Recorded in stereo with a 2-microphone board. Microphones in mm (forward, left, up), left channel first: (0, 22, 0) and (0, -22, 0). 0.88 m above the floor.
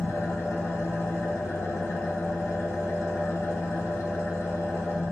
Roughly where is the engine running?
Left.